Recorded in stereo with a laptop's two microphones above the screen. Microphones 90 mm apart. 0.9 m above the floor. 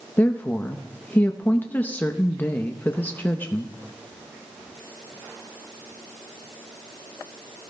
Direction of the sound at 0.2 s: 20° left (ahead or behind).